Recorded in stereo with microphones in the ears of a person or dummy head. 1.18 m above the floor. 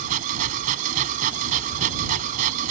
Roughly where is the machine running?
Right.